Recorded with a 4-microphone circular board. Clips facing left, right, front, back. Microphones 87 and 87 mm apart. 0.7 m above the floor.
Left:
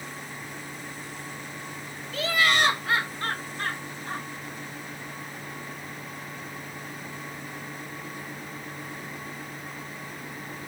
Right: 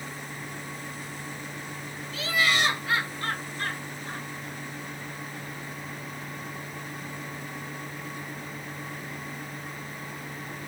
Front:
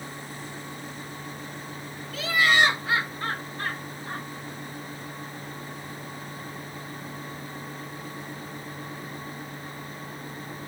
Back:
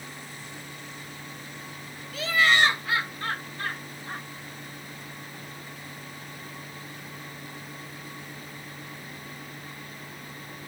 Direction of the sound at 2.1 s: 90° left.